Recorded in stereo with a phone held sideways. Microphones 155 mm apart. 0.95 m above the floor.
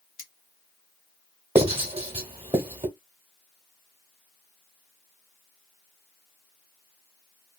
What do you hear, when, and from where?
0.2 s cutlery clinking: 60° left (ahead or behind), 0.8 m
1.6 s writing: 35° right (ahead or behind), 1.0 m